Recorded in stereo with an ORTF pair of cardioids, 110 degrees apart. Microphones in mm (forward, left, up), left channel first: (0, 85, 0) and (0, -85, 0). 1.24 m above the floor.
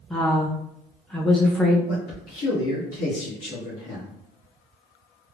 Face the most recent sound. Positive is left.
turn(degrees=65)